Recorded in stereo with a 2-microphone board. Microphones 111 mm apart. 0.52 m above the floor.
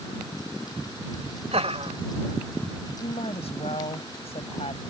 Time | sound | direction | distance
1.5 | laughter | 70° right (ahead or behind) | ?
3.0 | a woman speaking | 65° left (ahead or behind) | ?